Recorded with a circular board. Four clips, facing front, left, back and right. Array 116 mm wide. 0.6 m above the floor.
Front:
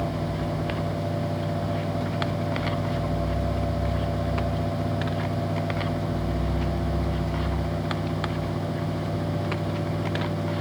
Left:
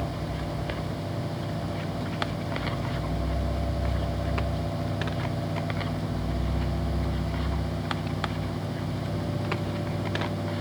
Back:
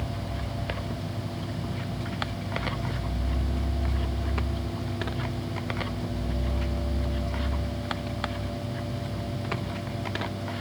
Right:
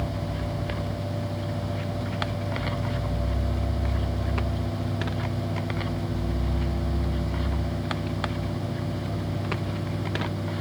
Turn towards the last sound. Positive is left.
No sound to turn to.